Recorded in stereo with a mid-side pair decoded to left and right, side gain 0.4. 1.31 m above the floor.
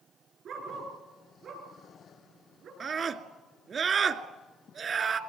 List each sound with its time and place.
0.5 s a dog barking: 70° right, 7 m
2.8 s a scream: 55° right, 2.5 m